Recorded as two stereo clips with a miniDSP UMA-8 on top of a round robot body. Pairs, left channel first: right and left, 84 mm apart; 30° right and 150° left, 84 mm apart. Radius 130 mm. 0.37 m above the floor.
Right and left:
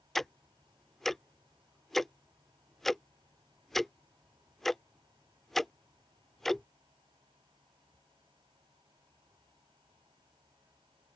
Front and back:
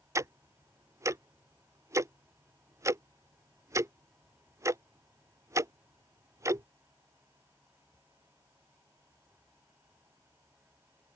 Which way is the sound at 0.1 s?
175° right.